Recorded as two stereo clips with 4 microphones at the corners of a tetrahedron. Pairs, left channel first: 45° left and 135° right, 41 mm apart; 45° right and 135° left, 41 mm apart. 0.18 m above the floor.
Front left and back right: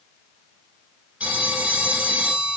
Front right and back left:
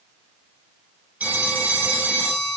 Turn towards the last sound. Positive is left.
turn(degrees=170)